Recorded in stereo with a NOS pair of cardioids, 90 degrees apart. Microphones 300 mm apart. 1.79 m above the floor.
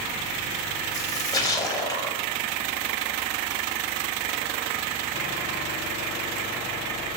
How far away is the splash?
About 0.6 m.